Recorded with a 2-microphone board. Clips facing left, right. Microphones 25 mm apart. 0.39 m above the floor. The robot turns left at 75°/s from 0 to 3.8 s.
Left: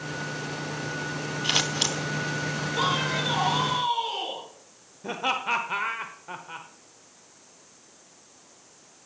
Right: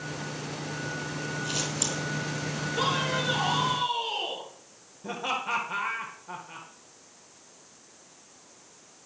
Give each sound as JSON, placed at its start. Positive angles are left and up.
{"t": 1.4, "sound": "scissors", "side_deg": 85, "distance_m": 0.8}
{"t": 2.8, "sound": "a man speaking", "azimuth_deg": 145, "distance_m": 7.0}
{"t": 5.0, "sound": "laughter", "side_deg": 25, "distance_m": 0.9}